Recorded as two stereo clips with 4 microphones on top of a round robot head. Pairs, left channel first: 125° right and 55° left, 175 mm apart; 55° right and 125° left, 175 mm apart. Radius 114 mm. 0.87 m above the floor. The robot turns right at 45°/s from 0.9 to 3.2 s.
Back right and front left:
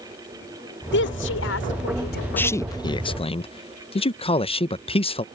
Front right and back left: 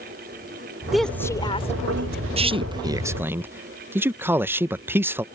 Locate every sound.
0.9 s a woman speaking: 145° right; by 2.3 s 85° right
2.4 s a man speaking: 160° left; by 5.2 s 165° right